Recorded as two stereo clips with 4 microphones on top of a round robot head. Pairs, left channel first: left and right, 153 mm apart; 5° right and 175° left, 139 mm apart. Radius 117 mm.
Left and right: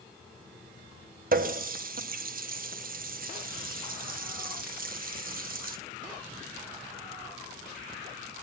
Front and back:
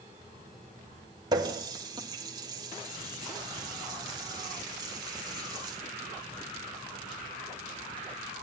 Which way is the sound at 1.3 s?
120° right.